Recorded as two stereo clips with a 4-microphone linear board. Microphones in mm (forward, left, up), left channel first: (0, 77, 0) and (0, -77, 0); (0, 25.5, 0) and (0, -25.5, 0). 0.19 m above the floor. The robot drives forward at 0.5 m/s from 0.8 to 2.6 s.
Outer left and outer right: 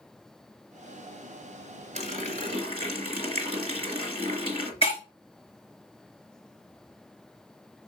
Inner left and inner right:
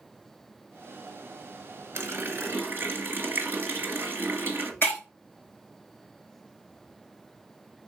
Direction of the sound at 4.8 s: 35° left (ahead or behind).